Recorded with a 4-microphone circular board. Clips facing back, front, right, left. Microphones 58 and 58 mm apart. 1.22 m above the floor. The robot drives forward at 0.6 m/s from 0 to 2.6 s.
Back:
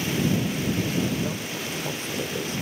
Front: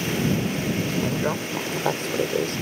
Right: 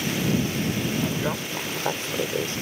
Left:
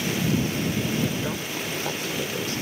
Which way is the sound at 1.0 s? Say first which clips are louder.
Front 3 dB, right 1 dB; 25° right.